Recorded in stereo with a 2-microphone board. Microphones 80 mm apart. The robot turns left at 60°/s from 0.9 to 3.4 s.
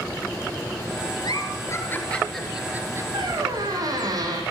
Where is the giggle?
65° left (ahead or behind), 3 m; by 3.0 s 35° right (ahead or behind), 3 m.